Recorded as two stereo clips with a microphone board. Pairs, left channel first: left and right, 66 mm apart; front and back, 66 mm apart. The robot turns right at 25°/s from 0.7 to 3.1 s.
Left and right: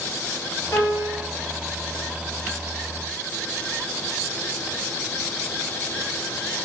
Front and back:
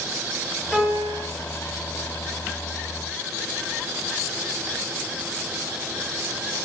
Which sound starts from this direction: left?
A piano, at 0.7 s.